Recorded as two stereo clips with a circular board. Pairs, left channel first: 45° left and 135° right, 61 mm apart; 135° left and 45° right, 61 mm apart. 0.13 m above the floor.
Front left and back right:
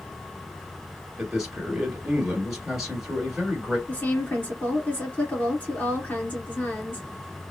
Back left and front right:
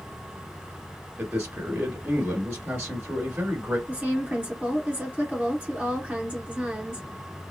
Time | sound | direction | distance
1.2 | a man speaking | 60° right | 1.6 m
3.9 | a woman speaking | straight ahead | 1.9 m